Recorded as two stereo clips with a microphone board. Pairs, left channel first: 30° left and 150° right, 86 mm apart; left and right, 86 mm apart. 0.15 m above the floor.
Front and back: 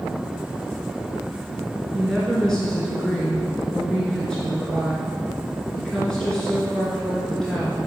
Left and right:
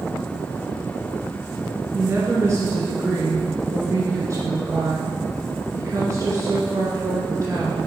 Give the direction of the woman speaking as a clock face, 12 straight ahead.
2 o'clock.